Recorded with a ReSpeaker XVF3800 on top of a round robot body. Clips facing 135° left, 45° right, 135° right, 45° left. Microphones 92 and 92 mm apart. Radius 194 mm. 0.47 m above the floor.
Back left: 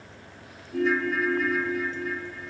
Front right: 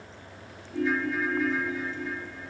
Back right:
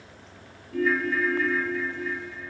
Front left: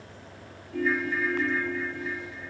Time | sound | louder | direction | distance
0.7 | a ringtone | back left 3 dB, back right 3 dB | 165° left | 0.9 m